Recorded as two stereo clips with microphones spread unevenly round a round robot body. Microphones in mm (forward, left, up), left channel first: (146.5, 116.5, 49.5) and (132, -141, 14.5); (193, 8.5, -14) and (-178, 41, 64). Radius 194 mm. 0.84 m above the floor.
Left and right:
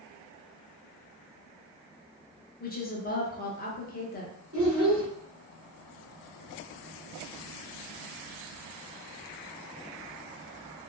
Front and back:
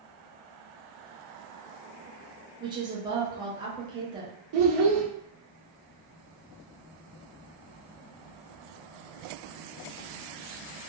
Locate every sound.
2.6 s a woman speaking: 80° left, 0.6 m
4.5 s a child speaking: 150° right, 0.5 m